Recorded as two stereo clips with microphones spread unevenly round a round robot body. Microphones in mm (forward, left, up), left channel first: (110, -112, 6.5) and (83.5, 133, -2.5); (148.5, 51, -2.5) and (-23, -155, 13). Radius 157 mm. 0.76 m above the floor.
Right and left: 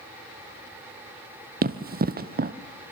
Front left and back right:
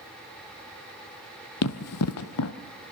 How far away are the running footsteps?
About 1.2 m.